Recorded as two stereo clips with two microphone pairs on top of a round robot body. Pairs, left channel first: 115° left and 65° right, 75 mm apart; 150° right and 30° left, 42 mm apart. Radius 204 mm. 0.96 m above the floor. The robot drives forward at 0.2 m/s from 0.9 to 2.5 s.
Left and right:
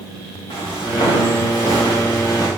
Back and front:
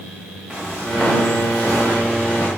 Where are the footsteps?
125° left, 4 m; by 2.5 s 140° left, 4.5 m.